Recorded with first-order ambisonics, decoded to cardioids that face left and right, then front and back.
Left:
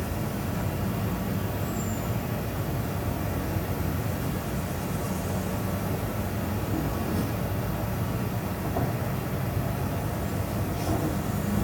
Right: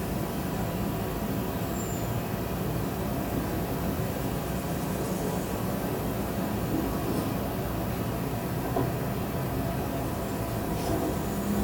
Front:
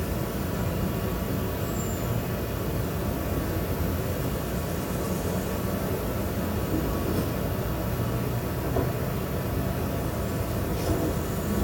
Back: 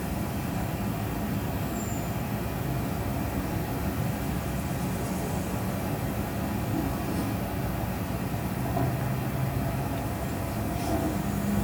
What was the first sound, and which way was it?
An insect, 25° right.